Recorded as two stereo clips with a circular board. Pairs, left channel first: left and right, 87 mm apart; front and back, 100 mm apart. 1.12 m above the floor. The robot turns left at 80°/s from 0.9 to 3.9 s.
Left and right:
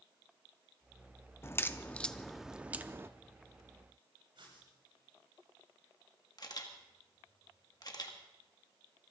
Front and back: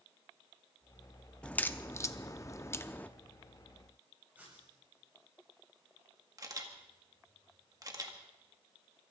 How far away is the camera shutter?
About 1.7 m.